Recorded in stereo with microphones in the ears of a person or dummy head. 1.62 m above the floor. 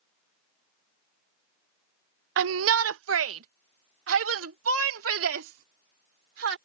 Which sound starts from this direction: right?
A shout, at 2.4 s.